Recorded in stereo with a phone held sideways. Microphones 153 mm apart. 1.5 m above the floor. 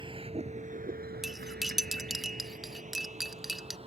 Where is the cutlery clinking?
Centre (ahead or behind).